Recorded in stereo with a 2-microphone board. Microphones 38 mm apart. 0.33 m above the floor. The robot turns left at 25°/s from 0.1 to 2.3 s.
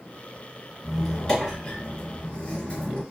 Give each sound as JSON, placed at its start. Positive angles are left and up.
{"t": 0.8, "sound": "a squeak", "side_deg": 0, "distance_m": 1.6}